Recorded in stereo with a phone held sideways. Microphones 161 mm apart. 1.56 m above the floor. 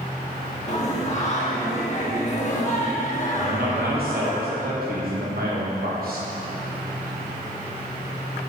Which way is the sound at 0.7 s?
45° left (ahead or behind).